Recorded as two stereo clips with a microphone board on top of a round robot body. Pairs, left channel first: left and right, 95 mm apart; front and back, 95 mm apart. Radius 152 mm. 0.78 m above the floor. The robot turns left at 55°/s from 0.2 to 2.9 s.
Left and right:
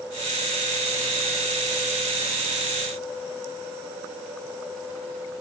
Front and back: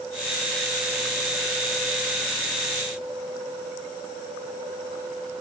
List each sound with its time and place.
Only background noise.